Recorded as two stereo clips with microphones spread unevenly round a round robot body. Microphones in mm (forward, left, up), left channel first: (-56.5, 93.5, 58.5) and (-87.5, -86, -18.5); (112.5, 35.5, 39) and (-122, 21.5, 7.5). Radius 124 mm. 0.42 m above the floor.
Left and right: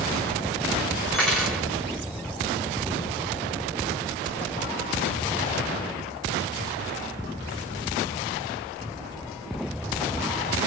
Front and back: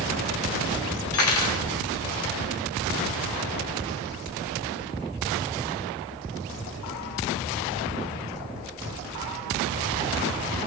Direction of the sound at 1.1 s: 20° right.